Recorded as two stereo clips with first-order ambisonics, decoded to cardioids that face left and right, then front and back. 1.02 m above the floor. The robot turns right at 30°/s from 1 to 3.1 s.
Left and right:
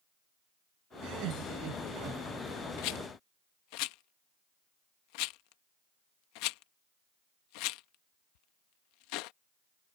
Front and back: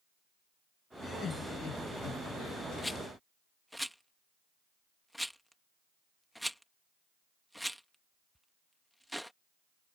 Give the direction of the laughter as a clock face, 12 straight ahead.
2 o'clock.